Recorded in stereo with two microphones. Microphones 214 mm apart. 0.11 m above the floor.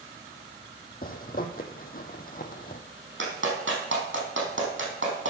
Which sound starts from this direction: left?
A zipper, at 1.0 s.